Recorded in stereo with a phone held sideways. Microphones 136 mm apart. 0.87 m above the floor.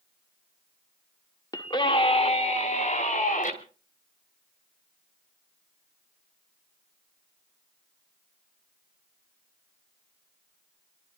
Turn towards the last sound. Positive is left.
turn(degrees=70)  # may be behind; listen again after turning